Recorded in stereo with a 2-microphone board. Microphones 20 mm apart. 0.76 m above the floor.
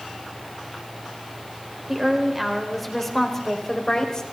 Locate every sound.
1.9 s a woman speaking: 20° right (ahead or behind), 3 m; by 4.2 s 35° left (ahead or behind), 4 m